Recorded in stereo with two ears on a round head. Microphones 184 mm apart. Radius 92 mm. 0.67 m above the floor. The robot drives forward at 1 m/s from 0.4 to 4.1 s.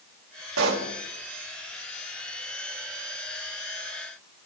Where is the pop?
75° right (ahead or behind), 2 m; by 0.9 s 70° right (ahead or behind), 2 m.